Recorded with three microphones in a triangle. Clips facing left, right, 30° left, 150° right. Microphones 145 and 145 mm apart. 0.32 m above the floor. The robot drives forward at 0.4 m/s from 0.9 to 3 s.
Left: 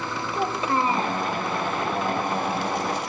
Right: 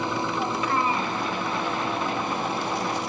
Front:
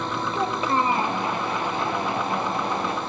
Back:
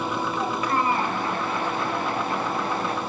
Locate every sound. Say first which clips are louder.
0.3 s a child speaking: left 5 dB, front 3 dB; 65° left, 1.1 m; by 1.2 s 75° left, 1.1 m